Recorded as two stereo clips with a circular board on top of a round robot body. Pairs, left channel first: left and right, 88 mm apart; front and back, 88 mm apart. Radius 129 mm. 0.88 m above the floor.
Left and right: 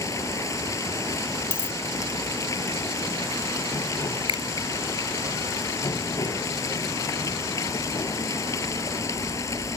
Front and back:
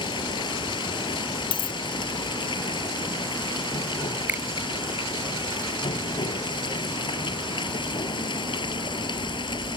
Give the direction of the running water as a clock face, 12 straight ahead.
11 o'clock.